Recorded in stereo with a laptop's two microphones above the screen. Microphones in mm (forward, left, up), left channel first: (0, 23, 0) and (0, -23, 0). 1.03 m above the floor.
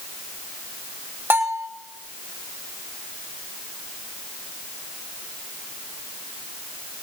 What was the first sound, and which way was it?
A bell, 55° right (ahead or behind).